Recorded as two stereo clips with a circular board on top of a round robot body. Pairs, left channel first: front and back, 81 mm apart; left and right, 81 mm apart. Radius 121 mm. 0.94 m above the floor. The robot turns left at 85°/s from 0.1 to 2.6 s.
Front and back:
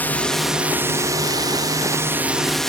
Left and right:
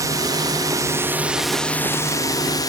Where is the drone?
65° right; by 2.7 s 85° left.